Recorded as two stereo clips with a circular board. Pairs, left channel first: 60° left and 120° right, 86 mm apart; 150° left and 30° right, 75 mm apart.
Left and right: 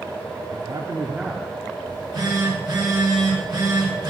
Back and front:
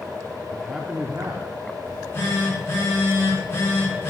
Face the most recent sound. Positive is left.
turn(degrees=-155)